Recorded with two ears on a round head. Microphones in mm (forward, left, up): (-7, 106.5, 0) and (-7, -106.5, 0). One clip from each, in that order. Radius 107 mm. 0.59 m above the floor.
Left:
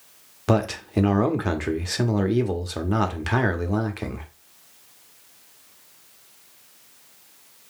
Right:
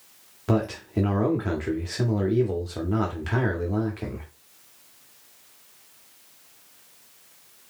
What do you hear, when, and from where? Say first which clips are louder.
0.5 s a man speaking: left 3 dB; 25° left (ahead or behind), 0.7 m